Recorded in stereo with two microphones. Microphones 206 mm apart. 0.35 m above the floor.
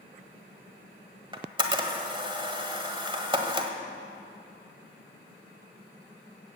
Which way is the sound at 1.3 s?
25° right (ahead or behind).